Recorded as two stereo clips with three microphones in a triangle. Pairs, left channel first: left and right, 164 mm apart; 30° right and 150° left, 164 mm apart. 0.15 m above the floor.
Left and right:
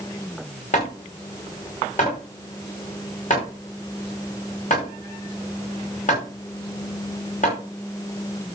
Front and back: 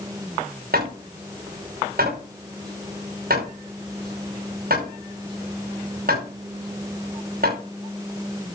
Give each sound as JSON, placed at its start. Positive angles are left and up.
{"t": 0.7, "sound": "hammering", "azimuth_deg": 130, "distance_m": 5.5}